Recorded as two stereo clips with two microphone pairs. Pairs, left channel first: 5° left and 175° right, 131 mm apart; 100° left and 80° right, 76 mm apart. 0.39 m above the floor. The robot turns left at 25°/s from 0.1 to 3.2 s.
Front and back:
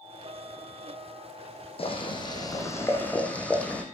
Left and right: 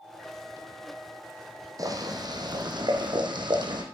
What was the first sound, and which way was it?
Boiling, 40° right.